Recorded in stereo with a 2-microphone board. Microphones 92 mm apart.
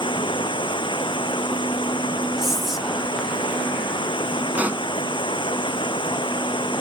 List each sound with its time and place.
0.0 s running water: 70° left (ahead or behind)
2.4 s whispering: 5° right (ahead or behind)
4.5 s a pop: 15° right (ahead or behind)